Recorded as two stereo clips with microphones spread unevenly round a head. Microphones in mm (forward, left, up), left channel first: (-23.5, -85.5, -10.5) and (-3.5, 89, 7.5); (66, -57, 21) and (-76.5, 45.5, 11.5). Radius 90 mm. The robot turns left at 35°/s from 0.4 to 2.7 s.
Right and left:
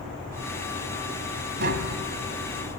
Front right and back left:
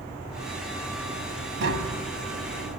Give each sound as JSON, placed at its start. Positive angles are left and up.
{"t": 1.6, "sound": "tapping", "azimuth_deg": 110, "distance_m": 1.9}